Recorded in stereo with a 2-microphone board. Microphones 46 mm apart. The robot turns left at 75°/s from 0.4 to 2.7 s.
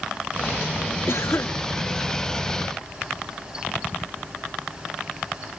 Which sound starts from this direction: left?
A cough, at 1.1 s.